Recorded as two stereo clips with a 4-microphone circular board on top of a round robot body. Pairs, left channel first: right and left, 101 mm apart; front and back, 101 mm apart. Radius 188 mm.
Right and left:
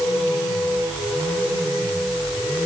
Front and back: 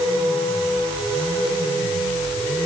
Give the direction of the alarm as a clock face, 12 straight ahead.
No alarm in this recording.